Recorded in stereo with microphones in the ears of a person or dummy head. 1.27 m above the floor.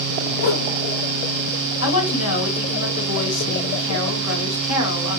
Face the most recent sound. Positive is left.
turn(degrees=75)  # may be behind; listen again after turning